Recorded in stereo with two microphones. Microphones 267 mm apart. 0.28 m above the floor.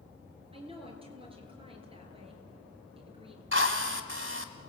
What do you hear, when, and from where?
0.5 s a woman speaking: 20° right (ahead or behind), 5 m
3.5 s a drill: 45° right (ahead or behind), 1.6 m